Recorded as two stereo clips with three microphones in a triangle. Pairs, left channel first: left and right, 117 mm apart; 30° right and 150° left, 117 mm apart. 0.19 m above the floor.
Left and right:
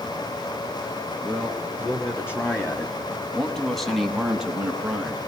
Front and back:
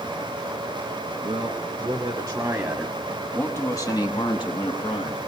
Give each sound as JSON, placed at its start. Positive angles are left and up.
{"t": 1.2, "sound": "a man speaking", "azimuth_deg": 150, "distance_m": 1.5}